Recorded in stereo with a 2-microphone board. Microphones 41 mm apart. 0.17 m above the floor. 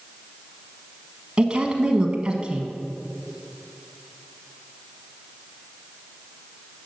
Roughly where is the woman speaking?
Right.